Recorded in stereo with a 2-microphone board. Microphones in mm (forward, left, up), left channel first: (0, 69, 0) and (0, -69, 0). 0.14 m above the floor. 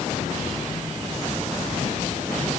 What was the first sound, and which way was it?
Only background noise.